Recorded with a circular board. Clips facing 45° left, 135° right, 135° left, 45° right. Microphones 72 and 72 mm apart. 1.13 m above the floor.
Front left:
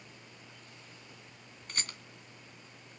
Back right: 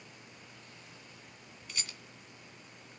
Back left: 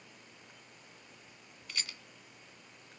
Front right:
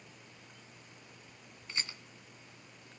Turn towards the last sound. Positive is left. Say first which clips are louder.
# front left 4 dB, front right 2 dB
turn(degrees=15)